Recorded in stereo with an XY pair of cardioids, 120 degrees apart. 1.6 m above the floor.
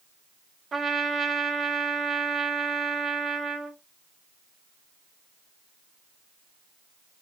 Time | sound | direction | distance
0.7 | a trumpet | 40° right | 1.3 m